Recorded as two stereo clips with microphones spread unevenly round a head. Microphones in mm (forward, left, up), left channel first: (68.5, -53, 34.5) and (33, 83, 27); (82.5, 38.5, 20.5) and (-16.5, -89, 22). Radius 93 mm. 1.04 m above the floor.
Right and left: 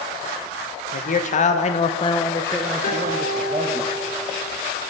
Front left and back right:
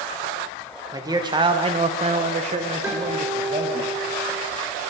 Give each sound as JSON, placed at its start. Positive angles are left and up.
{"t": 0.9, "sound": "a man speaking", "azimuth_deg": -60, "distance_m": 1.1}
{"t": 2.8, "sound": "a guitar", "azimuth_deg": -55, "distance_m": 4.0}